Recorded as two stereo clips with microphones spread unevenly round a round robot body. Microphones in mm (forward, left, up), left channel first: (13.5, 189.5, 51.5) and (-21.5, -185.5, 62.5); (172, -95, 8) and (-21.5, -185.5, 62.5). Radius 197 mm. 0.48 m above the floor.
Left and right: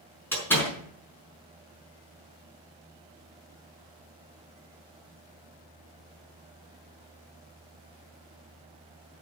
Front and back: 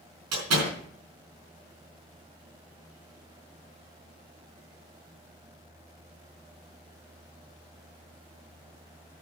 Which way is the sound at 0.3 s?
170° left.